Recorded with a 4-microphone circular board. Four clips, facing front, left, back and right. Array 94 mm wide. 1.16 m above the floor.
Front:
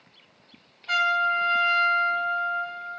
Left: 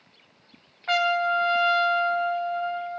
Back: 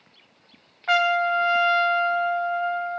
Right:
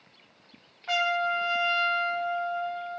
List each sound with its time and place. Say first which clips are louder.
0.9 s a trumpet: left 4 dB, back 3 dB; 160° left, 0.6 m